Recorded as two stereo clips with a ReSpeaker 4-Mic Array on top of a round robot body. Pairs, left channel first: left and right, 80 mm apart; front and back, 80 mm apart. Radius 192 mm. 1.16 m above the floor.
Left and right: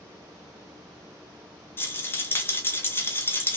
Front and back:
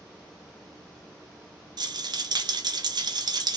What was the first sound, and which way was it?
A rattle, 150° left.